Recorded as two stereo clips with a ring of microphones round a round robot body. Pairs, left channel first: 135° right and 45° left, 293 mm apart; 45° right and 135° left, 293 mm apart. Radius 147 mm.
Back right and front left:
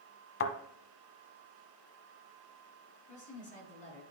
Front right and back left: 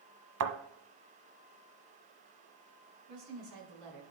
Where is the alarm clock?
No alarm clock in this recording.